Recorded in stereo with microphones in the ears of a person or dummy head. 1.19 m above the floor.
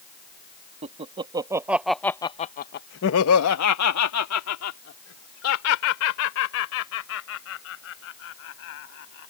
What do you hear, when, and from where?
0.8 s laughter: 35° right (ahead or behind); by 9.3 s 70° left (ahead or behind)